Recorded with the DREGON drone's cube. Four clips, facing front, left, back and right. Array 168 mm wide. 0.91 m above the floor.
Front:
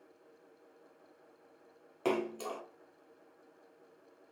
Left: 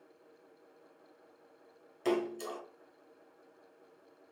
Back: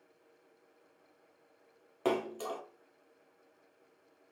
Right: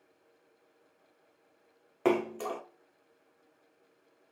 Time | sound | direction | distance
2.0 | a splash | 105° right | 0.6 m